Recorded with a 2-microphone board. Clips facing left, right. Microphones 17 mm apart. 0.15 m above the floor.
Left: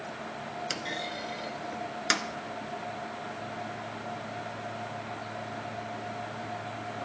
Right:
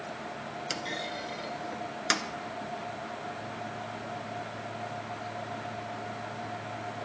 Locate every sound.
0.7 s a clunk: 5° left (ahead or behind), 0.5 m